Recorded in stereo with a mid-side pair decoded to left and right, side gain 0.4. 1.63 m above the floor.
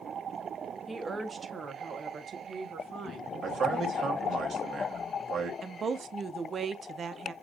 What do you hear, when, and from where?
0.9 s a woman speaking: 25° right, 1.3 m; by 4.4 s 75° right, 2.5 m
3.4 s a man speaking: 60° right, 1.9 m
5.6 s a woman speaking: 50° right, 0.7 m